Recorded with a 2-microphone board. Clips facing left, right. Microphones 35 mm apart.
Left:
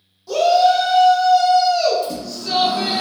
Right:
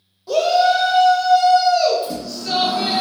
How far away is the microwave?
About 1.3 m.